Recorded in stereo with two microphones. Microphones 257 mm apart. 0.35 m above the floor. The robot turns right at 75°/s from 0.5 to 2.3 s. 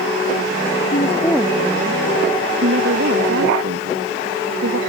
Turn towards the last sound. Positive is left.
turn(degrees=-115)